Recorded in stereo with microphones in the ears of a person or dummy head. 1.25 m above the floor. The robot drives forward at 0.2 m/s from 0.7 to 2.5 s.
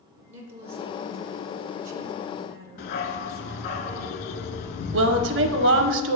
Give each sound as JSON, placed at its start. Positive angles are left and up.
{"t": 0.3, "sound": "a woman speaking", "side_deg": -30, "distance_m": 0.8}
{"t": 2.8, "sound": "a dog barking", "side_deg": 50, "distance_m": 1.0}
{"t": 4.9, "sound": "a woman speaking", "side_deg": -60, "distance_m": 0.8}